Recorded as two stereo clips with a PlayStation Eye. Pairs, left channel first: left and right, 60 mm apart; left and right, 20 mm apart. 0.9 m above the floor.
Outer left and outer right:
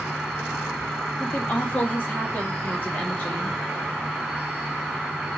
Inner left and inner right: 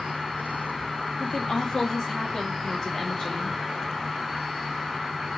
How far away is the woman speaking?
About 1.0 m.